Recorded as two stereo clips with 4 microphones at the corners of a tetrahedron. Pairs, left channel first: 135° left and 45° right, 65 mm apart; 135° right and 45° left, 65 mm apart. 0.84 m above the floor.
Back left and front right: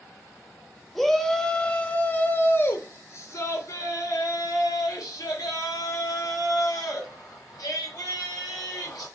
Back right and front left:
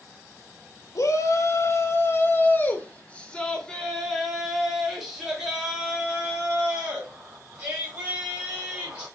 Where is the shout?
135° right, 1.4 m; by 9.1 s 115° left, 4 m.